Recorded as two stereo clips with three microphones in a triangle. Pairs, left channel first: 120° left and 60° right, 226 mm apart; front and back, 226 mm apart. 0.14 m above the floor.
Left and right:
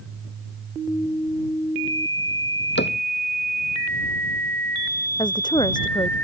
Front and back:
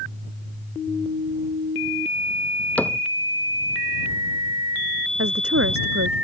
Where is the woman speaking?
170° right.